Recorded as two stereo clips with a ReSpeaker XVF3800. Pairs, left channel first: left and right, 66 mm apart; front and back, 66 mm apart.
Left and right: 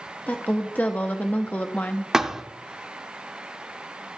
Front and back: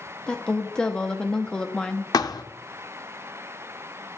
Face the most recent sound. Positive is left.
turn(degrees=-5)